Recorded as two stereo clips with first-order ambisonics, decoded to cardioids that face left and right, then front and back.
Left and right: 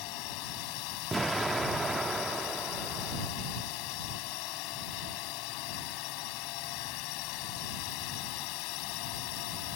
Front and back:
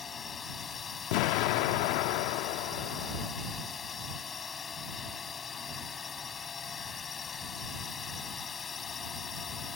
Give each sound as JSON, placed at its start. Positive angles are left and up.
{"t": 0.0, "sound": "a drone", "azimuth_deg": 70}
{"t": 1.1, "sound": "an explosion", "azimuth_deg": -10}